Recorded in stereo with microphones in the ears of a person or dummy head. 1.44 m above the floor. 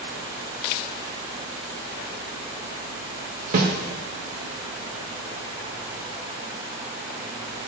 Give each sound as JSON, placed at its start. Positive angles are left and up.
{"t": 3.5, "sound": "a snare drum", "side_deg": -55, "distance_m": 1.8}